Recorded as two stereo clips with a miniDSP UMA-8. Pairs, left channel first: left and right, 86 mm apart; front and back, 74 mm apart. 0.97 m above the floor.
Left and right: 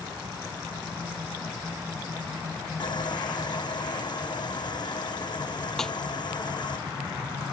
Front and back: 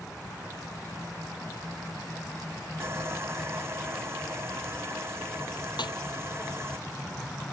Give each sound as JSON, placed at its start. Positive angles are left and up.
{"t": 2.8, "sound": "sawing", "azimuth_deg": 125}
{"t": 5.8, "sound": "a snare drum", "azimuth_deg": 5}